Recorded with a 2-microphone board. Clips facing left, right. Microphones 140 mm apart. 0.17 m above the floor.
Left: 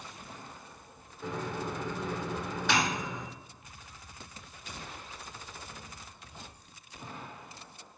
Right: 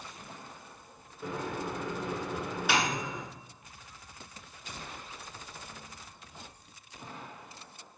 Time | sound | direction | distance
1.2 | a microwave | 10° right (ahead or behind) | 1.4 m